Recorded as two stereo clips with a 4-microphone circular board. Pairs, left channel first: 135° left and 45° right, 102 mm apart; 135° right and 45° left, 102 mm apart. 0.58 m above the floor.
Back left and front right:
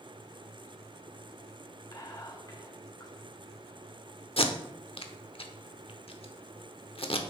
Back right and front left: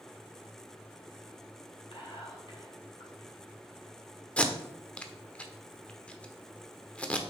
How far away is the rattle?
No rattle in this recording.